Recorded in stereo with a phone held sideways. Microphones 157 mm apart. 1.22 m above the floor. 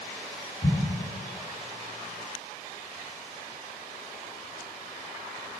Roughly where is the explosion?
Left.